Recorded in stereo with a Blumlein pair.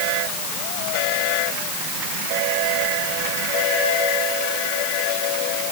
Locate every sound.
Only background noise.